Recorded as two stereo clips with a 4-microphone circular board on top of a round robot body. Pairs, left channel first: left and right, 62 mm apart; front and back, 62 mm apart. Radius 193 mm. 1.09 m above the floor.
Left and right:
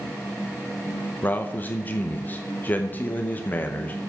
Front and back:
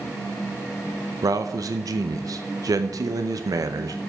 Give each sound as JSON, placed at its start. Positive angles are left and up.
{"t": 1.2, "sound": "a man speaking", "azimuth_deg": 150, "distance_m": 0.8}